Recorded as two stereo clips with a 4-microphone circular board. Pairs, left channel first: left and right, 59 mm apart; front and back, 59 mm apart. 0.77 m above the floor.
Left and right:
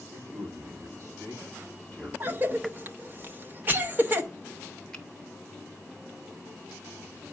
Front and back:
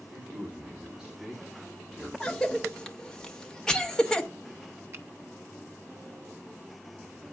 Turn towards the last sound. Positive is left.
turn(degrees=160)